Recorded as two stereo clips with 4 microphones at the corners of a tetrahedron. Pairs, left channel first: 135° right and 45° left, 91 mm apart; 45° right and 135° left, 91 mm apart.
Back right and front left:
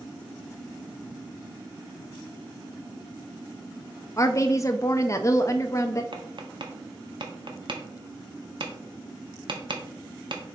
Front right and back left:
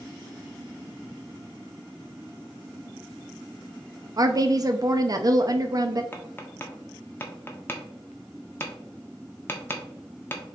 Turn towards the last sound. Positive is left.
turn(degrees=20)